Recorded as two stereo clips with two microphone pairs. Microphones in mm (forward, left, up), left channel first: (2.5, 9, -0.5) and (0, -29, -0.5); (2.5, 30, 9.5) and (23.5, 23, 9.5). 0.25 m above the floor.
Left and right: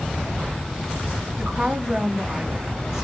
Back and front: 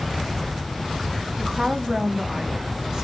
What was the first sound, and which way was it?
A woman speaking, 15° right.